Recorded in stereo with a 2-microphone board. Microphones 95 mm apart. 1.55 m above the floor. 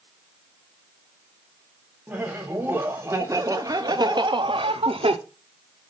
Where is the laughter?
20° right (ahead or behind), 1.8 m; by 5.2 s 75° right (ahead or behind), 0.8 m.